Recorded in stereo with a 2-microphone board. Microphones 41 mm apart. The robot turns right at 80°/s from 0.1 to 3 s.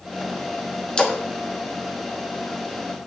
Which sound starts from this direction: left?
A splash, at 1.0 s.